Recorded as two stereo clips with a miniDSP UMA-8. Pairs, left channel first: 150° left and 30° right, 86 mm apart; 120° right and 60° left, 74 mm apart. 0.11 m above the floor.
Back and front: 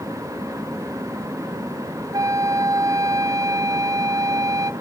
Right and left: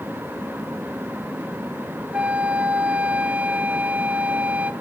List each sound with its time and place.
2.1 s a flute: 5° right, 0.8 m